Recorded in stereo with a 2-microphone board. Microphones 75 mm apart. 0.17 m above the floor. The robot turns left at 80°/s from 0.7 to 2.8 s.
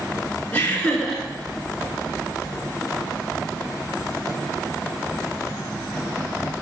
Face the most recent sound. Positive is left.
turn(degrees=-140)